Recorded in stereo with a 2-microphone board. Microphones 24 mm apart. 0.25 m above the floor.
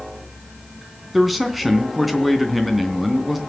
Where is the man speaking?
5° right (ahead or behind), 3 m.